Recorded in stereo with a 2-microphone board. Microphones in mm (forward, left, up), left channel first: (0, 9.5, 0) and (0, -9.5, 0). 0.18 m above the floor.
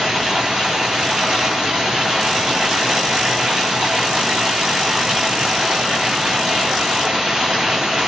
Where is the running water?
85° right, 2.5 m.